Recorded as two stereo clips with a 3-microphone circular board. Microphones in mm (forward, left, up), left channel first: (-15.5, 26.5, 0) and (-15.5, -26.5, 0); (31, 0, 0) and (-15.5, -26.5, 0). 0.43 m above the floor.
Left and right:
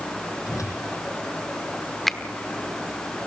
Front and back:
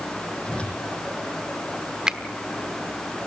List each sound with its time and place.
0.5 s a whoosh: 105° left, 9 m
2.1 s a finger snap: 165° left, 1.1 m